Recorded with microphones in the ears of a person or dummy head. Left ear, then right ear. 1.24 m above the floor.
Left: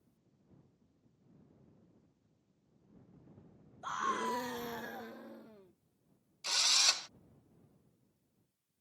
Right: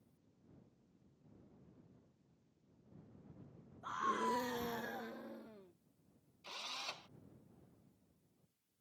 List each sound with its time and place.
3.8 s a scream: 30° left (ahead or behind); by 5.7 s centre (ahead or behind)
6.4 s a drill: 65° left (ahead or behind)